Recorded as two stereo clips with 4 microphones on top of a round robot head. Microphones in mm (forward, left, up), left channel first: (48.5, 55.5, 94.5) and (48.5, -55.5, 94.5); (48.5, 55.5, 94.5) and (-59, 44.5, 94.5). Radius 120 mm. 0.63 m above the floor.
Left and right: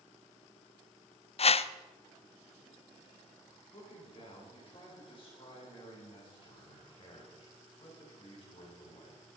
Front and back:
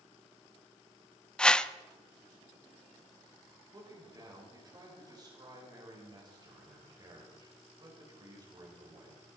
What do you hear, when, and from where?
1.4 s a whoosh: 90° left, 0.6 m
3.7 s a man speaking: 135° left, 3.5 m